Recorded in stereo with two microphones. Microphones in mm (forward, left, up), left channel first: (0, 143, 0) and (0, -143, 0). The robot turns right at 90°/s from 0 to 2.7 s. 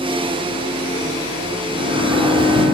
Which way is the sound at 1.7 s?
45° right.